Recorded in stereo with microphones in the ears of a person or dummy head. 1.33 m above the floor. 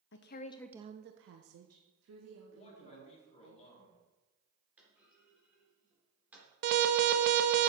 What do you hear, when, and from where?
0.1 s a woman speaking: 60° left (ahead or behind), 0.9 m; by 3.5 s 80° right, 3.5 m
2.5 s a man speaking: 30° left (ahead or behind), 3.5 m
4.8 s a clunk: 15° right (ahead or behind), 3.5 m
6.6 s an alarm: 55° right (ahead or behind), 0.9 m